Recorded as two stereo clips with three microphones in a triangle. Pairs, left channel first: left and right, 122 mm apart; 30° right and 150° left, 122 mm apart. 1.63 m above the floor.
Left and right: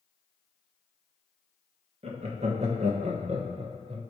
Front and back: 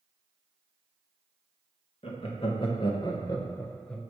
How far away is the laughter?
About 1.5 m.